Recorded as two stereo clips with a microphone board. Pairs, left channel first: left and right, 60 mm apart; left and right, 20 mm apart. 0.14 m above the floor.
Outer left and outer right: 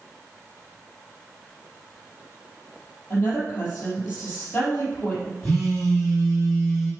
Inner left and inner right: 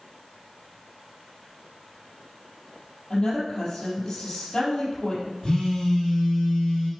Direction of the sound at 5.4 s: 25° left (ahead or behind).